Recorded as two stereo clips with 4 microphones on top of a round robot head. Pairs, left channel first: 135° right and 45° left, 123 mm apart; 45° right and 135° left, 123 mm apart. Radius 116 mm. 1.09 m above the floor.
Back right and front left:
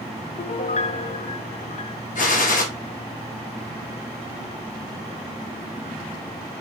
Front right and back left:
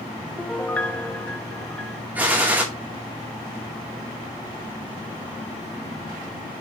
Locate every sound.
0.4 s a piano: 125° right, 0.6 m
2.1 s a gunshot: 145° right, 1.7 m